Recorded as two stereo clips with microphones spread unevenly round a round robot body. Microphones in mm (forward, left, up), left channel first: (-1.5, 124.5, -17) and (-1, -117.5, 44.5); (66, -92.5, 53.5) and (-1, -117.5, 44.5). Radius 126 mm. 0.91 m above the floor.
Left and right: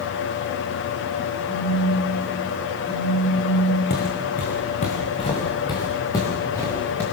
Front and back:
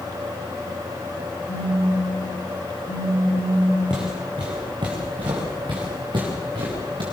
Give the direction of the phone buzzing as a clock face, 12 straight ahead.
12 o'clock.